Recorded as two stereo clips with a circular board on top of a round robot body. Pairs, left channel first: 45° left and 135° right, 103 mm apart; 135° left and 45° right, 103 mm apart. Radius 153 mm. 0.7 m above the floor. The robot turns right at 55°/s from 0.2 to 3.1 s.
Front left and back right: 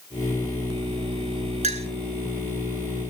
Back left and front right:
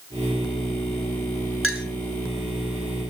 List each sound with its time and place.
1.6 s a clink: 130° right, 2.5 m; by 1.9 s 115° right, 2.5 m